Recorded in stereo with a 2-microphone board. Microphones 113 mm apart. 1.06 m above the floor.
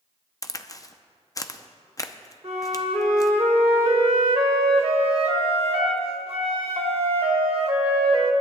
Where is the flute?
60° right (ahead or behind), 1.5 m.